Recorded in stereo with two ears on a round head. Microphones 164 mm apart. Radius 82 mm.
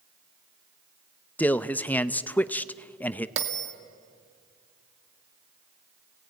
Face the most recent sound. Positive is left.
turn(degrees=-70)  # may be behind; listen again after turning